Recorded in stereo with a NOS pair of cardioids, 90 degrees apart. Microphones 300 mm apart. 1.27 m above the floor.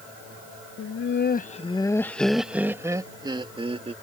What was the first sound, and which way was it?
Laughter, 55° left.